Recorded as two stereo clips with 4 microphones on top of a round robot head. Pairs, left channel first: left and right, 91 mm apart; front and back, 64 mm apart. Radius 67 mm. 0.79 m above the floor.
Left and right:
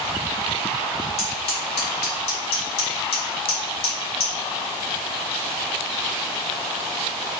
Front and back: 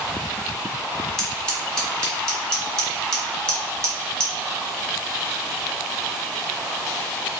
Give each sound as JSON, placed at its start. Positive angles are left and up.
{"t": 1.2, "sound": "scissors", "azimuth_deg": 75, "distance_m": 1.1}